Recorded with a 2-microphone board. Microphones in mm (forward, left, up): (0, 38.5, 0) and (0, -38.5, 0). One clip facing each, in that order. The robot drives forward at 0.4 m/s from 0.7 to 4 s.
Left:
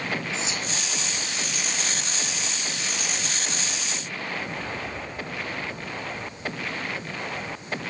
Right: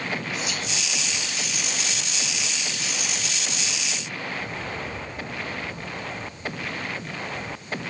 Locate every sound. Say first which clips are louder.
0.3 s whispering: even; 25° left (ahead or behind), 2.5 m